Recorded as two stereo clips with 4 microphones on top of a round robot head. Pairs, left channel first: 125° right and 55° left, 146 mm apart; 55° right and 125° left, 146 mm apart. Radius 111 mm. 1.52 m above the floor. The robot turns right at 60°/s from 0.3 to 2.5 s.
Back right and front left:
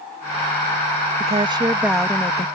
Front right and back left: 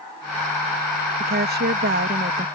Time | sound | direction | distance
1.2 | a woman speaking | 100° left | ?